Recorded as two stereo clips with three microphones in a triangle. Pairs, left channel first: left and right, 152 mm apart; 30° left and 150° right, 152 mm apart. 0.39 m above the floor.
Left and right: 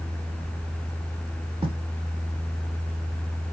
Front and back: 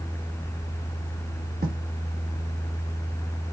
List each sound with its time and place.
1.6 s writing: 145° right, 3 m